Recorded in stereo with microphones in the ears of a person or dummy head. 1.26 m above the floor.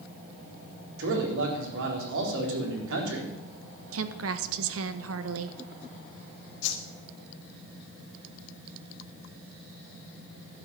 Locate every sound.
1.0 s a man speaking: 70° right (ahead or behind), 4 m
3.9 s a woman speaking: 70° right (ahead or behind), 1.4 m
6.6 s a whoosh: 65° left (ahead or behind), 2 m